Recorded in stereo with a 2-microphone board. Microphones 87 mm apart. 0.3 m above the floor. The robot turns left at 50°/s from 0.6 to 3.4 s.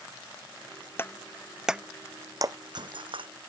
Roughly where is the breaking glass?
Left.